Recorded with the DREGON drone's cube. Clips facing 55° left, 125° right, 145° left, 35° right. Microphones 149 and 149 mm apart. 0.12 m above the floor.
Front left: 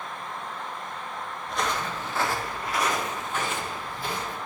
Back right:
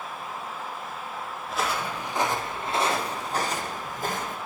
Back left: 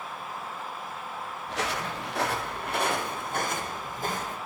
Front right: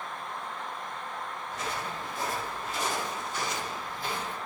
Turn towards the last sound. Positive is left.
turn(degrees=-165)